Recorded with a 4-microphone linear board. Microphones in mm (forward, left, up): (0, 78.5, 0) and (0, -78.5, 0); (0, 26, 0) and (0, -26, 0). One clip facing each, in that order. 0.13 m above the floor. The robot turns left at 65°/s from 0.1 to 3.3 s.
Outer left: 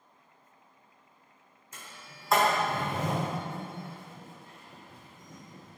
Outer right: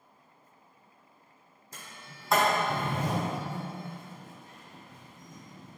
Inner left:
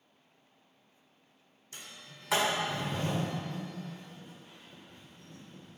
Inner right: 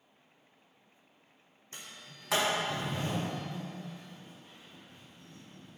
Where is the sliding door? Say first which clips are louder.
Outer right 1 dB, even; 35° right (ahead or behind), 1.1 m; by 5.8 s 65° left (ahead or behind), 1.1 m.